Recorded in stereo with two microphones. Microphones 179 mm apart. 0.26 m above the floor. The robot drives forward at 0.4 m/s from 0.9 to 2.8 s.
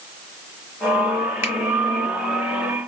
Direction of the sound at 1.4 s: 15° right (ahead or behind).